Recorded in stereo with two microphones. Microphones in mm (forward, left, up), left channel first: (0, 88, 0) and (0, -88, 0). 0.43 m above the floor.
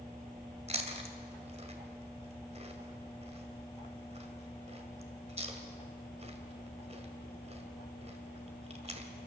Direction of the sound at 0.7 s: 35° right (ahead or behind).